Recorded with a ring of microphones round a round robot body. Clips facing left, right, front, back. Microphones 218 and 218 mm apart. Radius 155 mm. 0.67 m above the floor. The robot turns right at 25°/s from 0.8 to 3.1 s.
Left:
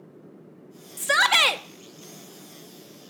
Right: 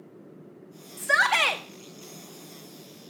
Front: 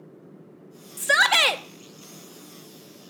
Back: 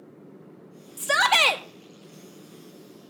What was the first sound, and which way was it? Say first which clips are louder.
A shout: left 2 dB, even; 60° left.